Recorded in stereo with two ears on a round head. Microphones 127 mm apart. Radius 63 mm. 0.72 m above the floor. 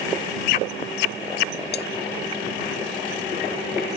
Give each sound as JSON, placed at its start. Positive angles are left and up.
{"t": 1.7, "sound": "cutlery clinking", "side_deg": 85}